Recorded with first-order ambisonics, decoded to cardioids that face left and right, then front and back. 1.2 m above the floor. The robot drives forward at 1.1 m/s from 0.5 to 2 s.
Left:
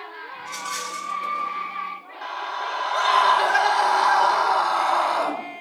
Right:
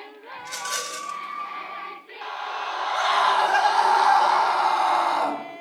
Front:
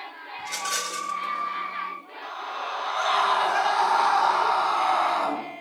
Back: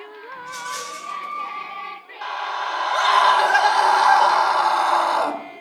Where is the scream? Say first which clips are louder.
Left 1 dB, back 7 dB; 170° right, 2.5 m.